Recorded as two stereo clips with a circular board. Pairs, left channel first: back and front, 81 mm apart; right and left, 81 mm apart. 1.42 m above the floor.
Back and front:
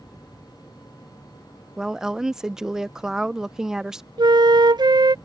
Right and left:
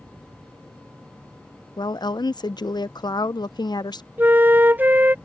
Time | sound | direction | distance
1.8 | a woman speaking | 85° right | ?
4.2 | a flute | 25° left | ?